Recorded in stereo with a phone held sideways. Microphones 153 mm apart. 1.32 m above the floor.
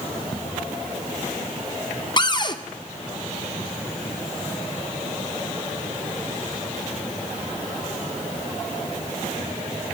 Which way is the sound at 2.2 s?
30° left (ahead or behind).